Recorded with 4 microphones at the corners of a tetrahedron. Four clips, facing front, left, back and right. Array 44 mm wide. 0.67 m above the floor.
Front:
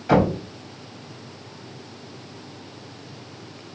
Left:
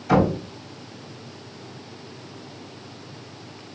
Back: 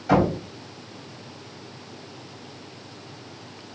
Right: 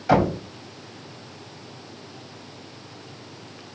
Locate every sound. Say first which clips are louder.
0.1 s knocking: even, front 1 dB; 75° right, 3.5 m